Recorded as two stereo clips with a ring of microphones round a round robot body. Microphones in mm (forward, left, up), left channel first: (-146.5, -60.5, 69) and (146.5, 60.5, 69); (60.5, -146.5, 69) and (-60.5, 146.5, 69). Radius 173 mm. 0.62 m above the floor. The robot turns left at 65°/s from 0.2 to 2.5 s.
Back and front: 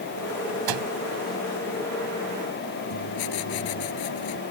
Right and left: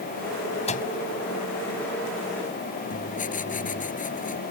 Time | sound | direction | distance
0.7 | a microwave | 5° left | ?
2.9 | writing | 135° right | ?